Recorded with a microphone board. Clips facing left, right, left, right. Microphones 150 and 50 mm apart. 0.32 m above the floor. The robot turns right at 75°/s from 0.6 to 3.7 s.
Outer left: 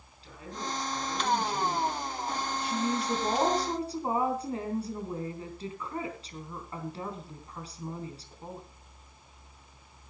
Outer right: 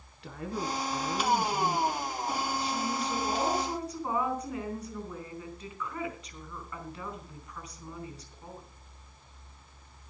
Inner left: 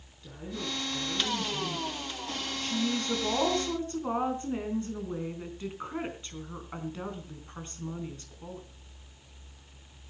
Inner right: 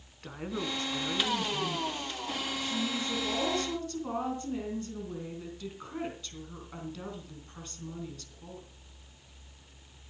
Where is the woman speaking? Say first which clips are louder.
Outer right 4 dB, inner right 2 dB; 85° right, 4 m; by 8.6 s 145° left, 4 m.